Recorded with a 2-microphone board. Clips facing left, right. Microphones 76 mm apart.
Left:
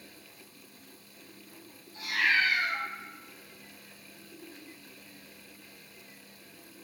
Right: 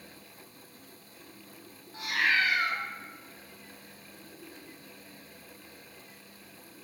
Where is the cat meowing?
70° right (ahead or behind), 1.1 m.